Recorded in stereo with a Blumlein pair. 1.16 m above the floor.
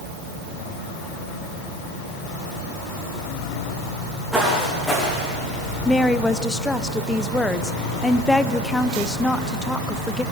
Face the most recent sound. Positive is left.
turn(degrees=5)